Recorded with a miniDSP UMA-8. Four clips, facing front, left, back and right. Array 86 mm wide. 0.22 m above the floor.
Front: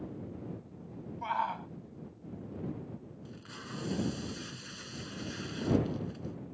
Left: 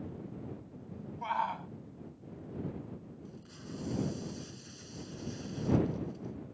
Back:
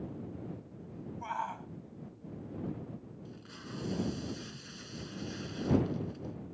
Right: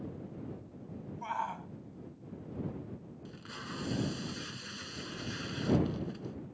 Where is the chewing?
I don't hear chewing.